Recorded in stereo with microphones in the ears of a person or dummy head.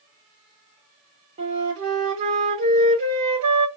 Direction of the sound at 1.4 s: 40° right (ahead or behind).